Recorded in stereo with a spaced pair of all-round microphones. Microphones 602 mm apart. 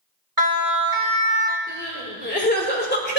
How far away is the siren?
About 2.5 m.